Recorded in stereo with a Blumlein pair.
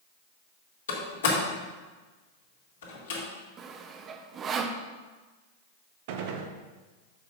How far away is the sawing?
About 0.7 m.